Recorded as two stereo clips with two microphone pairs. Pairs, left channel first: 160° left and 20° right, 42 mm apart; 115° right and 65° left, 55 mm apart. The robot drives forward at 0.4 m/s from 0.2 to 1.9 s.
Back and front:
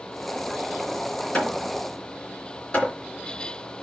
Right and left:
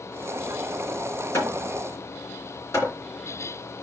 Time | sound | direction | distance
1.3 | hammering | 140° right | 2.5 m